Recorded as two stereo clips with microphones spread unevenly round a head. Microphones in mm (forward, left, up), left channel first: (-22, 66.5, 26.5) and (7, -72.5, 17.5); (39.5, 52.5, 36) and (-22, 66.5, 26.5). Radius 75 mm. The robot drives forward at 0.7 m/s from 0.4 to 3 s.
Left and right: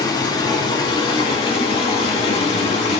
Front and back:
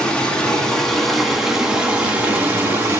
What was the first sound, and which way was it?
Running water, 50° left.